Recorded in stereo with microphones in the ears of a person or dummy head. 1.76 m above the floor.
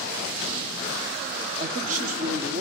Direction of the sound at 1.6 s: 45° right (ahead or behind).